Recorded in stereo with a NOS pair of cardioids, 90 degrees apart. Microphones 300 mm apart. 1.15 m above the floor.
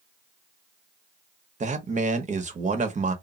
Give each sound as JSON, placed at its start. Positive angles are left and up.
{"t": 1.6, "sound": "a man speaking", "azimuth_deg": -25, "distance_m": 0.8}